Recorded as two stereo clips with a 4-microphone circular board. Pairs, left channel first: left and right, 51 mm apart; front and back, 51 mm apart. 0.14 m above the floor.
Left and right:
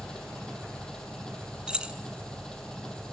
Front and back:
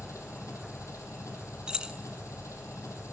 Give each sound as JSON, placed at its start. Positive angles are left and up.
{"t": 0.0, "sound": "an engine running", "azimuth_deg": 15, "distance_m": 4.5}
{"t": 1.7, "sound": "keys jangling", "azimuth_deg": -130, "distance_m": 0.8}